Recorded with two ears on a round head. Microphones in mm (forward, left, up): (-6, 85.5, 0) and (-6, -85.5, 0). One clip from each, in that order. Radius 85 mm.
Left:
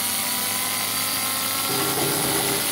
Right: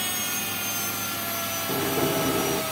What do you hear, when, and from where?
1.7 s a sliding door: 45° left (ahead or behind), 3.5 m